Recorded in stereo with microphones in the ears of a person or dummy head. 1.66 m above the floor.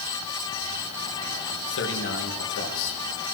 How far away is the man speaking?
About 2.5 m.